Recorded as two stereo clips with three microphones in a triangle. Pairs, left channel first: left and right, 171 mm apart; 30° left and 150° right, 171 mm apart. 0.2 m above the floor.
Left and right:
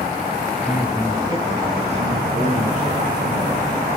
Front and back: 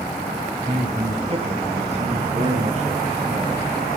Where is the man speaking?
Straight behind, 1.7 m; by 3.7 s 100° right, 4 m.